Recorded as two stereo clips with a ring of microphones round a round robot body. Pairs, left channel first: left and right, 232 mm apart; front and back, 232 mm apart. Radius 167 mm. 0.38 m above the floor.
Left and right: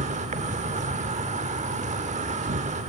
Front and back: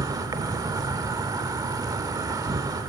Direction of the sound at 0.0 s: 120° right.